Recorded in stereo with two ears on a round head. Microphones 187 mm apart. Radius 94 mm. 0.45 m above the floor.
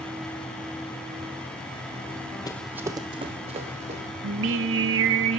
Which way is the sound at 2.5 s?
20° left (ahead or behind).